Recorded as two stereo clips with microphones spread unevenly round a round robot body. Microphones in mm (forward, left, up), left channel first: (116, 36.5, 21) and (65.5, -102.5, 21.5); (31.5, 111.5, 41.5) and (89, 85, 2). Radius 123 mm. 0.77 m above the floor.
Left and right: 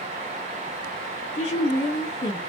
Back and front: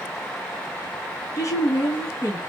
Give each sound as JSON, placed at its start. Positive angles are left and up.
{"t": 1.4, "sound": "a woman speaking", "azimuth_deg": 95, "distance_m": 1.1}